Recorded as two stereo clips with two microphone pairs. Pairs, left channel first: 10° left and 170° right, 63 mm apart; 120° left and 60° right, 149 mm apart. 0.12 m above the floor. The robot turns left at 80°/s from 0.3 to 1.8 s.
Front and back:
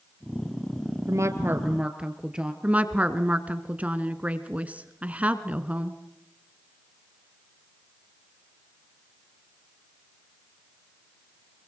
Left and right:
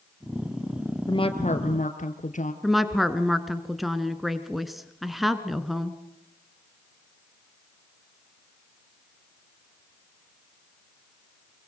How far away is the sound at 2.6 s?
About 1.4 m.